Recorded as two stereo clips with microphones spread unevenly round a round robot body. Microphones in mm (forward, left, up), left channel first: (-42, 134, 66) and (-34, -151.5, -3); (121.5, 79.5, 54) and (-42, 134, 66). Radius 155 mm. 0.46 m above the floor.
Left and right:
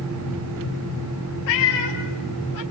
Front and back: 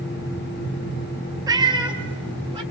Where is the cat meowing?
95° left, 2.5 m; by 2.6 s 105° left, 4 m.